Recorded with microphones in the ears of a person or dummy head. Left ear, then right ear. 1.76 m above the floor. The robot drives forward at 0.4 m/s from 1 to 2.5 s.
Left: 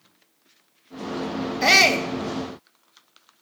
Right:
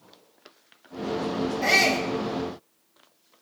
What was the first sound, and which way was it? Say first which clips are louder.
A shout: left 5 dB; 55° left (ahead or behind).